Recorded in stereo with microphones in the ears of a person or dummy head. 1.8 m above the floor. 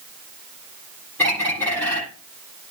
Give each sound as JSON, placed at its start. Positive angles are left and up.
{"t": 1.2, "sound": "a bird", "side_deg": 10, "distance_m": 9.0}